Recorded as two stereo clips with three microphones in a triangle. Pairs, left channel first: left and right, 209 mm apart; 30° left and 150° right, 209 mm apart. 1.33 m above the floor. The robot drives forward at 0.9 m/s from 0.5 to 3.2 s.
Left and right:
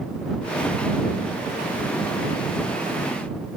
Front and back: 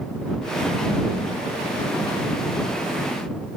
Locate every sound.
Only background noise.